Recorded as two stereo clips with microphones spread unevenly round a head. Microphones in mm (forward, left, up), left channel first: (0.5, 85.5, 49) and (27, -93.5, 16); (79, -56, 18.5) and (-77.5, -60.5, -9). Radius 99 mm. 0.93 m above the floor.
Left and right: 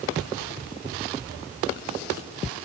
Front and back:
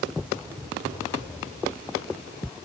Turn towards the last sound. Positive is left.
No sound to turn to.